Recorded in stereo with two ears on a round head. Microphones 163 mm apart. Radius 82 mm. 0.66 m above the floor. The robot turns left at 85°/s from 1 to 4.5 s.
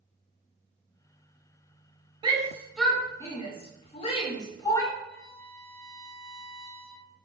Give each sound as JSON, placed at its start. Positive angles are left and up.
{"t": 2.2, "sound": "a shout", "side_deg": -25, "distance_m": 0.8}
{"t": 5.0, "sound": "a violin", "side_deg": 0, "distance_m": 1.7}